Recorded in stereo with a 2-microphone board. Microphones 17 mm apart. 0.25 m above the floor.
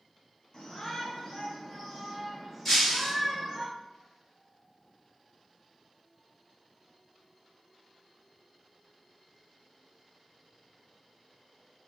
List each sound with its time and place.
0.5 s a shout: 45° left (ahead or behind), 1.9 m; by 3.6 s centre (ahead or behind), 2 m
2.6 s breaking glass: 15° left (ahead or behind), 2 m